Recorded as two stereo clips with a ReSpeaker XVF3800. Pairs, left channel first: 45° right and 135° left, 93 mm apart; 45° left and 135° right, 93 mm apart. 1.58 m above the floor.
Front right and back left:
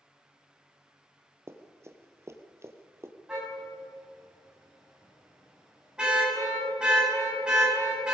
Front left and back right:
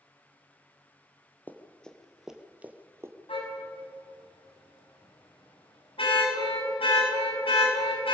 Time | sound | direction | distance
1.5 | running footsteps | 100° left | 1.9 m
3.3 | a car horn | 55° left | 7 m